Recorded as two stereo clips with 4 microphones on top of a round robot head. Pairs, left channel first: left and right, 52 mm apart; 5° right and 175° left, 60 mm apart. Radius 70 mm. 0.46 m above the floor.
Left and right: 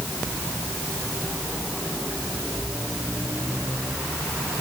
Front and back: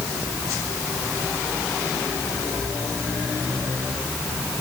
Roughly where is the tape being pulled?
No tape being pulled in this recording.